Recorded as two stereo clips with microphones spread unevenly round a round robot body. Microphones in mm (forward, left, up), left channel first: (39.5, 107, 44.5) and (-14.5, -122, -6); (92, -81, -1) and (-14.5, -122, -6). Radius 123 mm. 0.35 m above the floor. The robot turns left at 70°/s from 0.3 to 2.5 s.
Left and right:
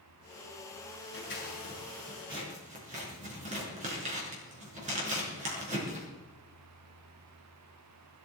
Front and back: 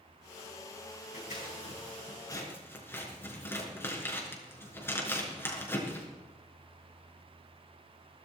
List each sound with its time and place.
1.1 s scissors: 45° left, 5.5 m; by 6.0 s 50° right, 5.5 m